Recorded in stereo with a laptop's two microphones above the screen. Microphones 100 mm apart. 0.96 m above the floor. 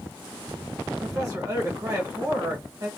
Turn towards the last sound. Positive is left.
turn(degrees=-35)  # may be behind; listen again after turning